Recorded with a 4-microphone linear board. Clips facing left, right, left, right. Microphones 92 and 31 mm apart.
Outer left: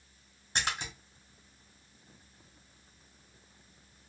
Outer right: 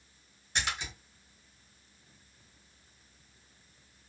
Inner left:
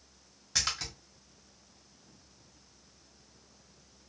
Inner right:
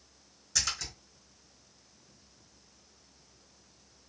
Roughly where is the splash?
Left.